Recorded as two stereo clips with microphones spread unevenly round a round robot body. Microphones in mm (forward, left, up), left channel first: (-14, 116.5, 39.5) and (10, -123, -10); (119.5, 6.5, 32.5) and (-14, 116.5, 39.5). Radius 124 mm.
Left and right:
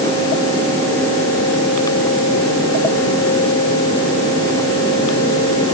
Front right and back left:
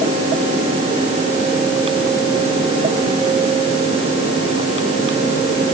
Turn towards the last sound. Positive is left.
No sound to turn to.